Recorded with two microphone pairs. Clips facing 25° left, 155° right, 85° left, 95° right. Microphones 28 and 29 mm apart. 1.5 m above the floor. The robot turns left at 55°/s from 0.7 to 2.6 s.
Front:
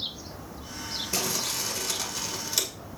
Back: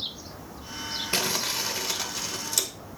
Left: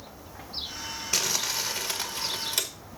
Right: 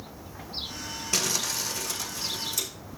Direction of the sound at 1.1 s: 170° left.